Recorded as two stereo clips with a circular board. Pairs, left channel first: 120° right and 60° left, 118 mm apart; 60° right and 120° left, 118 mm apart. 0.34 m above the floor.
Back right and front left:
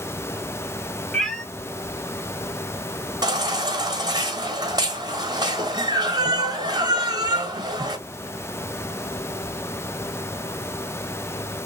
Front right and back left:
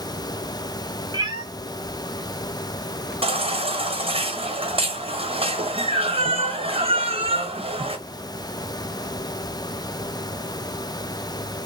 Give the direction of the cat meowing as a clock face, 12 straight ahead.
7 o'clock.